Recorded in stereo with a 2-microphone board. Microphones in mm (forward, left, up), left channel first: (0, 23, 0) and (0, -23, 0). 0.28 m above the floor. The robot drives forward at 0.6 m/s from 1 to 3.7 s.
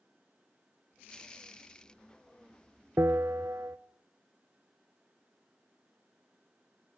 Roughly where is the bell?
Right.